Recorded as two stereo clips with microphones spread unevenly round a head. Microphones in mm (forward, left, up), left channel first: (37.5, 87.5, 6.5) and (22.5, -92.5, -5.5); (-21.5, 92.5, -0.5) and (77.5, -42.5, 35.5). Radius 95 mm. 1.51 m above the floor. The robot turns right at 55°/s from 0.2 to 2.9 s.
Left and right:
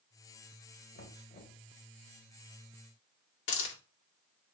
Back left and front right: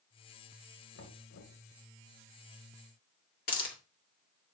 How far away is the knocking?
About 1.8 m.